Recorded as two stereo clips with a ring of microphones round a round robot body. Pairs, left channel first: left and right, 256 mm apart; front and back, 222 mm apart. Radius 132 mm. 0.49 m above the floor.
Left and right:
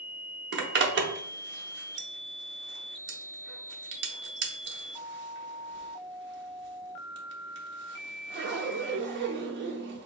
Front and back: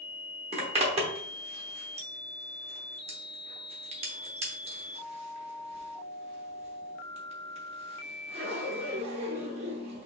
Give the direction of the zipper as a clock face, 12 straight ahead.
4 o'clock.